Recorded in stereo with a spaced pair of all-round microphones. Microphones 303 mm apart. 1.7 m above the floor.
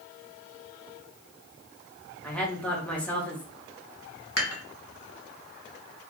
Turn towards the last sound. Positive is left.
turn(degrees=50)  # may be behind; listen again after turning